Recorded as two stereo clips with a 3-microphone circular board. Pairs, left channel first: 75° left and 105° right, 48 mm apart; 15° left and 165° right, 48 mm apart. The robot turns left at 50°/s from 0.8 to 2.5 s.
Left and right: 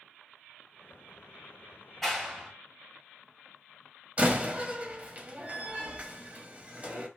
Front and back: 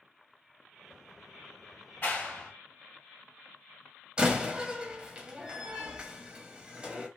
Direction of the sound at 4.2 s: 120° right.